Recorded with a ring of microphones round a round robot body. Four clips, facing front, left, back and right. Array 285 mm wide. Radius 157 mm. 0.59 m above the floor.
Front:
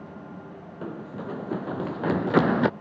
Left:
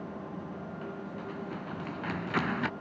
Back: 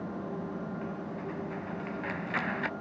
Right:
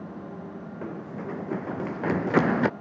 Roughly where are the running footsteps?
Ahead right.